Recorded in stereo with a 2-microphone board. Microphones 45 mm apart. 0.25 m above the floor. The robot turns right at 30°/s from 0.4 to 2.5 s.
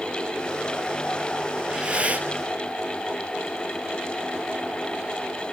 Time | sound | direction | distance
1.6 | breathing | 15° right (ahead or behind) | 1.0 m